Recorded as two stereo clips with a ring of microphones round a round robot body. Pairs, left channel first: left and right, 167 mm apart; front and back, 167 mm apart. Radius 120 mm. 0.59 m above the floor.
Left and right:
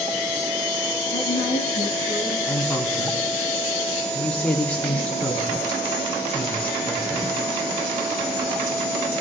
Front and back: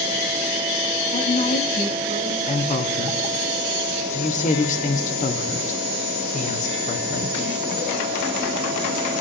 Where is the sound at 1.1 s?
45° left, 5 m; by 2.4 s 30° left, 6.5 m.